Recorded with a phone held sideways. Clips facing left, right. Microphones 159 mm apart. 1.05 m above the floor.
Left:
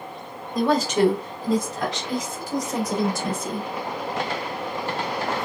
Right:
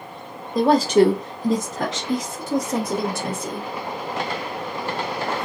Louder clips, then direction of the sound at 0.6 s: Right 5 dB; 35° right (ahead or behind).